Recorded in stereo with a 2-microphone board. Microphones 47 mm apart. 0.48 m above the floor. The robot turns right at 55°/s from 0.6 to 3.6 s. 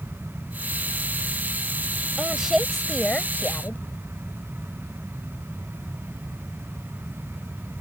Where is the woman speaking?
25° right; by 3.8 s 55° left.